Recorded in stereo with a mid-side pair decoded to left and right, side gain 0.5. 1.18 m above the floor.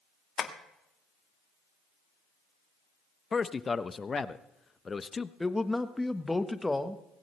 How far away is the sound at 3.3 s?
About 0.8 m.